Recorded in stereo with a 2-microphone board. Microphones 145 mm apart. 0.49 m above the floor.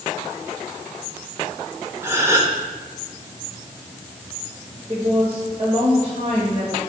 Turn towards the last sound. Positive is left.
turn(degrees=-40)  # may be behind; listen again after turning